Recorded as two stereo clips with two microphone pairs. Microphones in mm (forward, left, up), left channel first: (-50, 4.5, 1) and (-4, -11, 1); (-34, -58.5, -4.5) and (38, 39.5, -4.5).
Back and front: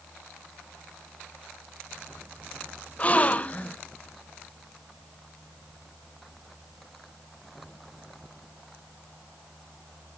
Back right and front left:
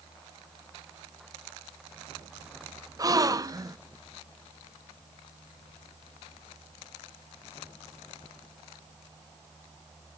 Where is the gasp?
110° left, 0.6 m.